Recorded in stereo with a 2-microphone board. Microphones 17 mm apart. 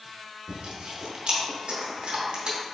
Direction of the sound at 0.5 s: 60° right (ahead or behind).